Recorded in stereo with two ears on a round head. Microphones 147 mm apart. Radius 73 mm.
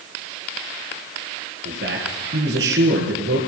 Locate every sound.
1.6 s a man speaking: 75° right (ahead or behind), 5 m